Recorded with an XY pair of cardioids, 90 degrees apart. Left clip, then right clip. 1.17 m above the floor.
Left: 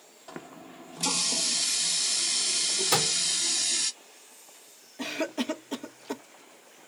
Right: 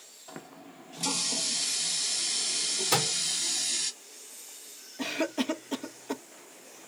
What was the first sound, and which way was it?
A running tap, 25° left.